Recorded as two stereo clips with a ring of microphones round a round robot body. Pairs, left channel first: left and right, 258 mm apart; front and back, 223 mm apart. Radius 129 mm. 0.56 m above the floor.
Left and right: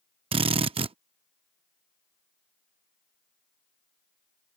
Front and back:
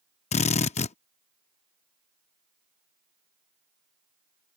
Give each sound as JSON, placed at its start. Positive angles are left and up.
{"t": 0.3, "sound": "a drill", "azimuth_deg": -35}